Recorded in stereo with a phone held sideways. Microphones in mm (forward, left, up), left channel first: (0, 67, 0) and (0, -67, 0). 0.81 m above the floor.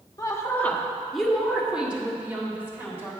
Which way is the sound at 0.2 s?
30° left (ahead or behind).